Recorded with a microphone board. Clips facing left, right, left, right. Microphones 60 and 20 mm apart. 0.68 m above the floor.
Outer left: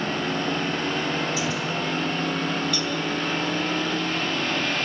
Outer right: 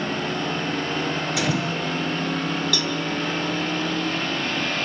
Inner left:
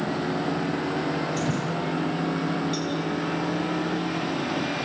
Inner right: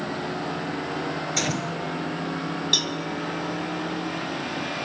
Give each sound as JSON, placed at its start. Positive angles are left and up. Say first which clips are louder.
{"t": 1.4, "sound": "a gunshot", "louder": "outer right 2 dB, even", "side_deg": -70, "distance_m": 5.0}
{"t": 2.7, "sound": "a cowbell", "louder": "outer right 1 dB, inner right 5 dB", "side_deg": -80, "distance_m": 3.0}